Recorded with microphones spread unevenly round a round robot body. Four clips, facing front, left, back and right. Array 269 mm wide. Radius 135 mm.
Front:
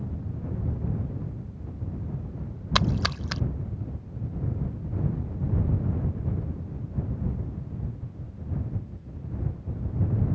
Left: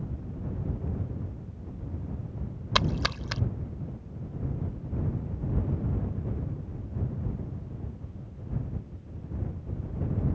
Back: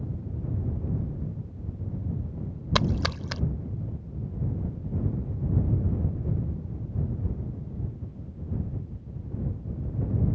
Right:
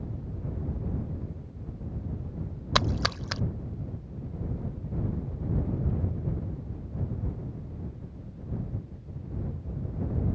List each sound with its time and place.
2.8 s a splash: 170° right